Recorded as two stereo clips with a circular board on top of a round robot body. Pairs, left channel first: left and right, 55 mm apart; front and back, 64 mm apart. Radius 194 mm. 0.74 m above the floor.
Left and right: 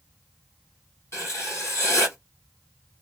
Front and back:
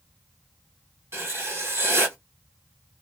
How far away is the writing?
About 1.5 m.